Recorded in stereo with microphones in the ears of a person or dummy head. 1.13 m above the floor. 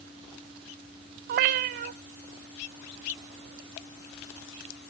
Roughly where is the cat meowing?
Right.